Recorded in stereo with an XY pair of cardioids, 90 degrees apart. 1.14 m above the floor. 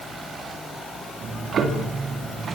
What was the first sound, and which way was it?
Ticking, 65° right.